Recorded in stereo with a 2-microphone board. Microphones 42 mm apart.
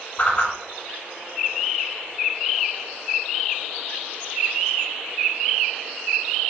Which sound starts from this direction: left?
A whoosh, at 0.2 s.